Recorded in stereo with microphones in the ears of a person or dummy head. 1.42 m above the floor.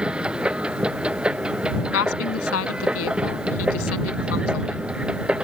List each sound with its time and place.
0.0 s a machine running: 5° right (ahead or behind)
1.9 s a woman speaking: 85° left